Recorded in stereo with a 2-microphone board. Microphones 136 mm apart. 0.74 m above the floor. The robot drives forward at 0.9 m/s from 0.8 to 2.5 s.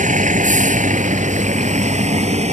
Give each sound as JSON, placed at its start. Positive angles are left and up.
{"t": 0.0, "sound": "a vehicle", "side_deg": -70}